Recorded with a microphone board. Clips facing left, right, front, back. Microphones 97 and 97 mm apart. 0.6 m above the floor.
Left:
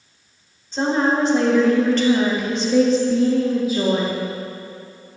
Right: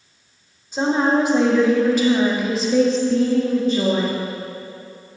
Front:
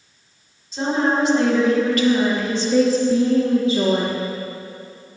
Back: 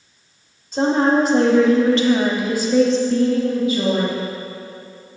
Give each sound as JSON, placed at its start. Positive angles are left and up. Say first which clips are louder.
{"t": 0.7, "sound": "a woman speaking", "louder": "right 1 dB, back 4 dB", "azimuth_deg": -165, "distance_m": 1.7}